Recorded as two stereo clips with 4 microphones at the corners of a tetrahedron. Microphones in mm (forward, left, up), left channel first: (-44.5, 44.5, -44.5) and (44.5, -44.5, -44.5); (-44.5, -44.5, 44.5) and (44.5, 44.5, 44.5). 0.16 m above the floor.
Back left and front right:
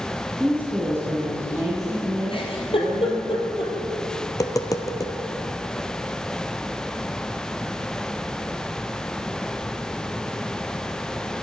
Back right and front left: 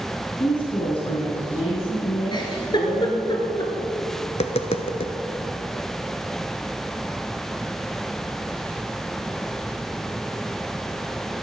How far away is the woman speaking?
About 1.4 m.